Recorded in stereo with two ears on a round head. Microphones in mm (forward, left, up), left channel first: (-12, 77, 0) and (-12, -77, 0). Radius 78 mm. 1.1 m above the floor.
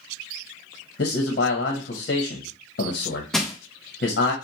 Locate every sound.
1.0 s a man speaking: 60° left (ahead or behind), 0.9 m
3.3 s crushing: centre (ahead or behind), 0.7 m